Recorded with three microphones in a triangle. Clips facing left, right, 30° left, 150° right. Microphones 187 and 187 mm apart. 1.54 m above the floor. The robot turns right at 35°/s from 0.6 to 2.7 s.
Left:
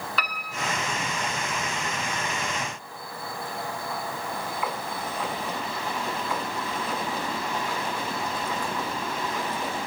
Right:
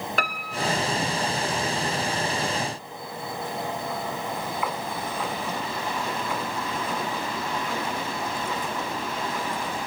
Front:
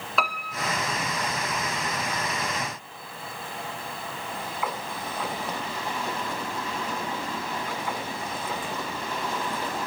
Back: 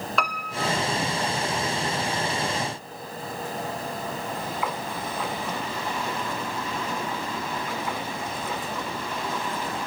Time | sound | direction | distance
0.2 | a piano | 60° right | 1.7 m